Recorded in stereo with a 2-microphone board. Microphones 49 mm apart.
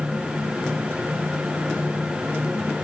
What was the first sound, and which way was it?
Only background noise.